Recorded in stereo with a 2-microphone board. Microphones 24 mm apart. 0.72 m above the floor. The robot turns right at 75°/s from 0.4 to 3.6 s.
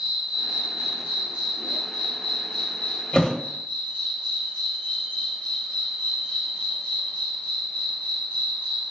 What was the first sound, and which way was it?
An insect, 145° right.